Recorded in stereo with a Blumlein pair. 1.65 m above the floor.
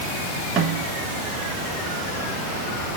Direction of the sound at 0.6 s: 20° right.